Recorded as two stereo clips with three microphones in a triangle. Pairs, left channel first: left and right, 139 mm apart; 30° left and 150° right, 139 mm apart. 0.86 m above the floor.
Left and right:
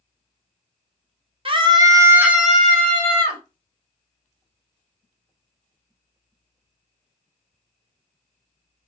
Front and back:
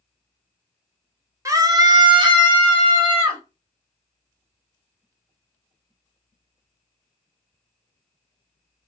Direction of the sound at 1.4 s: 95° right.